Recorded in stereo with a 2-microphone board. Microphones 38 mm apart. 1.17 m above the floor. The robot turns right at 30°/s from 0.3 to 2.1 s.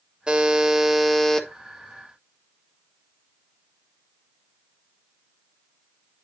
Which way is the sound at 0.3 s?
20° right.